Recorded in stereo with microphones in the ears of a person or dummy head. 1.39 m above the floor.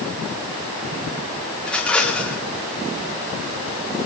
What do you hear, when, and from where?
1.6 s a rattle: 5° left (ahead or behind), 1.5 m